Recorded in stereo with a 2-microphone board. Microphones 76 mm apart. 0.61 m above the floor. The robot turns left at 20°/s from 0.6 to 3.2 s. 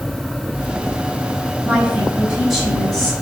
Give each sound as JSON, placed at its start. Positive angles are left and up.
{"t": 1.6, "sound": "a woman speaking", "side_deg": -20, "distance_m": 3.0}